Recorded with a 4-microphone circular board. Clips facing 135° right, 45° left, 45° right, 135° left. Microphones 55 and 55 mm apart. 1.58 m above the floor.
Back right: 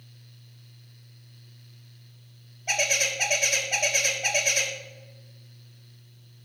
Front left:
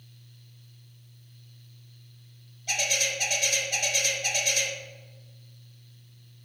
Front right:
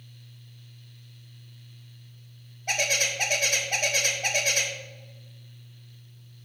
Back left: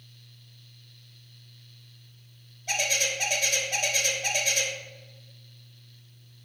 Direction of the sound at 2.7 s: 80° right.